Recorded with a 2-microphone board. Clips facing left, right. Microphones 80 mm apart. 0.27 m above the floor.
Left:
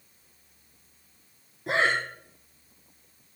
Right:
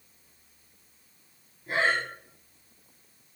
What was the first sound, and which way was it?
Breathing, 85° left.